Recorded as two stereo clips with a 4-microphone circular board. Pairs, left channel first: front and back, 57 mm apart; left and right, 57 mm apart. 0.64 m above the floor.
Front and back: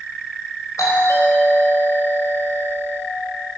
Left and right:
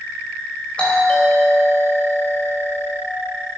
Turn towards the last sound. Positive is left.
turn(degrees=20)